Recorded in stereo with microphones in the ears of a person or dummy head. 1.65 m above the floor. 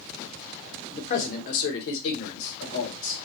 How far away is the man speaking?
About 1.0 m.